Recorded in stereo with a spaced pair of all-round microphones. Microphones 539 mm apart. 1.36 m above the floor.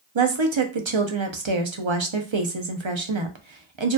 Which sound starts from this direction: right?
A woman speaking, at 0.1 s.